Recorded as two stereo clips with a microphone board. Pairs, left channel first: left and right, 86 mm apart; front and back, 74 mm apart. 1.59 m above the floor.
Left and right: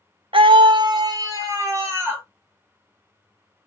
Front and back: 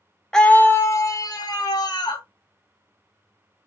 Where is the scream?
80° right, 0.6 m; by 2.2 s 25° right, 1.5 m.